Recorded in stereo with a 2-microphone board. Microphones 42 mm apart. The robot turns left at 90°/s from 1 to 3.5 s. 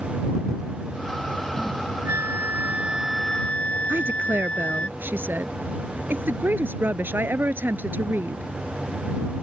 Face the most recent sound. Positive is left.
turn(degrees=-55)  # may be behind; listen again after turning